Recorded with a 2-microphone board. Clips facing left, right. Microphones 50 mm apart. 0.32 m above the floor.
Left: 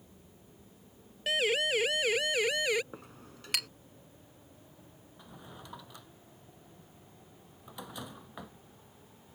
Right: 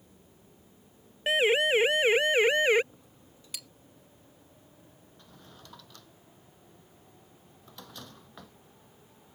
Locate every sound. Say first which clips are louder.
1.3 s a siren: right 5 dB; 25° right (ahead or behind); by 2.8 s 35° right (ahead or behind)
2.9 s a clink: left 8 dB; 70° left (ahead or behind)
5.2 s a drawer: left 4 dB; 15° left (ahead or behind)